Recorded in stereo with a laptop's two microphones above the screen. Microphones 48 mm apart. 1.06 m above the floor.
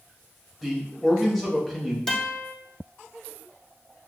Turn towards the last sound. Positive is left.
turn(degrees=10)  # may be behind; listen again after turning